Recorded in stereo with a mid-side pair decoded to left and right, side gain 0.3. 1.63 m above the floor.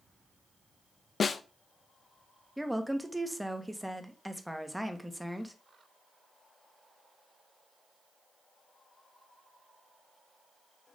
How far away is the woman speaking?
About 1.5 m.